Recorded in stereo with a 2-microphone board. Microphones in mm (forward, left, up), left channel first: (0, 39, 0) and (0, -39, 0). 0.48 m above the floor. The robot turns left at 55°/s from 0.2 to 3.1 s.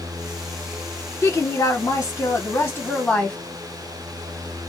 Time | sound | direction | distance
1.2 | a woman speaking | 130° left | 1.0 m